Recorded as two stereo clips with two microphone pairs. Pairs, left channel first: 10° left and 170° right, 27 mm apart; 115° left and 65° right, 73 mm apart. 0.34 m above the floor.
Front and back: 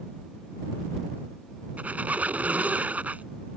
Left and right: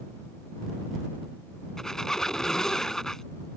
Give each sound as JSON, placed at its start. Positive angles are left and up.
{"t": 1.8, "sound": "a squeak", "azimuth_deg": -160}